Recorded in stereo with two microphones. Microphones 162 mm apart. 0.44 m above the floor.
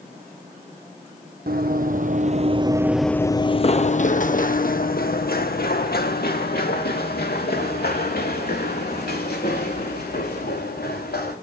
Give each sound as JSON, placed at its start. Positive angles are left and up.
{"t": 1.5, "sound": "running footsteps", "side_deg": -70, "distance_m": 1.1}